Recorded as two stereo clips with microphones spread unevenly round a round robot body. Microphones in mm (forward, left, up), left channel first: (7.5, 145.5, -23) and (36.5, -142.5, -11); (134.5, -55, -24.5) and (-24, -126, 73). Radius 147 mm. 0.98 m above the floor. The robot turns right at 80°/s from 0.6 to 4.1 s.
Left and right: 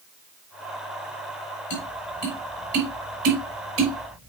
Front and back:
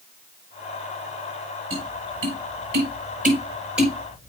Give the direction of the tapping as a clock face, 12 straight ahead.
8 o'clock.